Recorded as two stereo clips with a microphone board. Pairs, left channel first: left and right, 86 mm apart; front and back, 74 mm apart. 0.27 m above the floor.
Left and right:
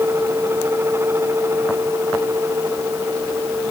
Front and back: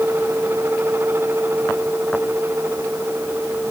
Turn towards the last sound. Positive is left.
No sound to turn to.